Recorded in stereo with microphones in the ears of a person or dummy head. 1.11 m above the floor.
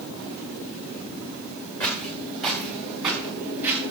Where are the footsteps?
15° left (ahead or behind), 4.5 m; by 3.8 s centre (ahead or behind), 5.5 m.